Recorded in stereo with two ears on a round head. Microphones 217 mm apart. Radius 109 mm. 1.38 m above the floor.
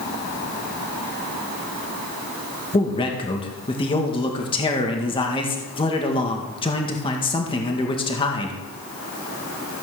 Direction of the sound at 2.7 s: 20° left (ahead or behind).